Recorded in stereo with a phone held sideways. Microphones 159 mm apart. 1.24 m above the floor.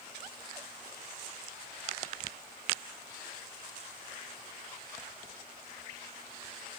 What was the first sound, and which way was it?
Only background noise.